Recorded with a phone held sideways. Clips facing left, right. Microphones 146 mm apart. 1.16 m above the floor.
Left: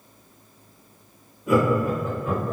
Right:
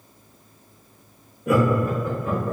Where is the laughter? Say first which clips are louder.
Even; 70° right (ahead or behind), 1.4 m; by 2.5 s 60° right (ahead or behind), 2.0 m.